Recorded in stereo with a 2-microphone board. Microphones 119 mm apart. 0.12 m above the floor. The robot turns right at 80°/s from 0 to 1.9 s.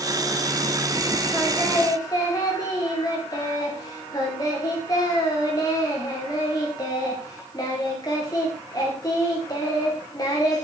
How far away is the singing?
About 7 m.